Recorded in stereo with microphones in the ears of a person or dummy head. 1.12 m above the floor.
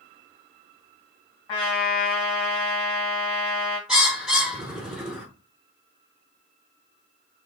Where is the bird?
5° right (ahead or behind), 0.9 m.